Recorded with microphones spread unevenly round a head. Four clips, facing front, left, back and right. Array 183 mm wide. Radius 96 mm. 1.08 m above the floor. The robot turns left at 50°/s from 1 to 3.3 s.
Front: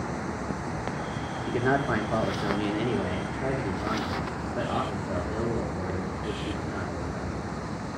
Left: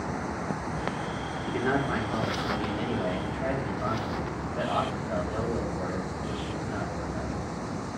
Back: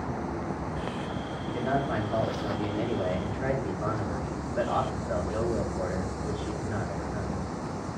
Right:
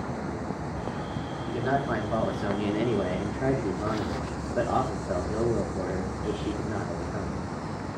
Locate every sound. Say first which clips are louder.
1.5 s a man speaking: even, front 3 dB; 15° left, 2.5 m; by 7.4 s 75° right, 2.5 m